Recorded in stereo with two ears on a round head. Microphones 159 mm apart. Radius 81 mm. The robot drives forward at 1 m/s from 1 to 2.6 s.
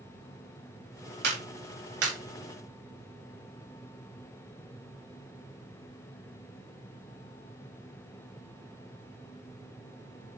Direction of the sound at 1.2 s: 65° right (ahead or behind).